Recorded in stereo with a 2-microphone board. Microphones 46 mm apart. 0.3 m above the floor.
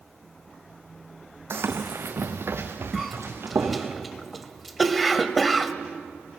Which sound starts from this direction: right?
Running footsteps, at 1.5 s.